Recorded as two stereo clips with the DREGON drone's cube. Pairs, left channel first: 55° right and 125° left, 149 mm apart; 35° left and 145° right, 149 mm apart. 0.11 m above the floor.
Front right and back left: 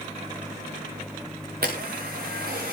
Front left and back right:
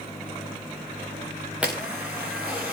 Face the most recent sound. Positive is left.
turn(degrees=130)